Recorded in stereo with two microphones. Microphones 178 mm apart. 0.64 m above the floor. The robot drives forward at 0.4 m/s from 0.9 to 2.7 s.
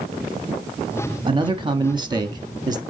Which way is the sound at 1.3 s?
25° right (ahead or behind).